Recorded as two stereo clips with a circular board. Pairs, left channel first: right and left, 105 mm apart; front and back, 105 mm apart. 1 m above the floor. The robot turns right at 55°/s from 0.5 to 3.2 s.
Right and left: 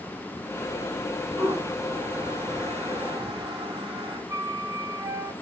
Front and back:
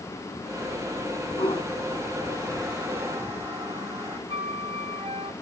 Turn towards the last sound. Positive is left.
turn(degrees=150)